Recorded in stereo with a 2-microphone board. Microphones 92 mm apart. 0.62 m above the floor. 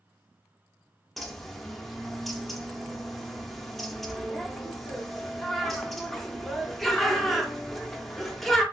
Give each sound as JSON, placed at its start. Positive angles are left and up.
{"t": 1.2, "sound": "a bird", "side_deg": 0, "distance_m": 0.5}